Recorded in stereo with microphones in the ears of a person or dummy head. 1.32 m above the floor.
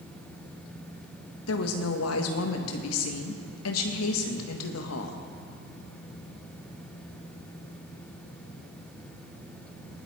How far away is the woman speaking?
About 1.6 m.